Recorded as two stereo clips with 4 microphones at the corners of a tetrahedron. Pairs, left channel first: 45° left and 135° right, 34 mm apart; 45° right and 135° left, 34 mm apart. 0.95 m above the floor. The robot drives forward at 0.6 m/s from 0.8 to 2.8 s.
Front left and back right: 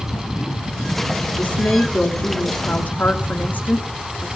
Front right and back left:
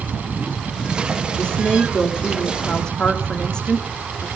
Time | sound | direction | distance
1.4 | a woman speaking | 15° left | 3.5 m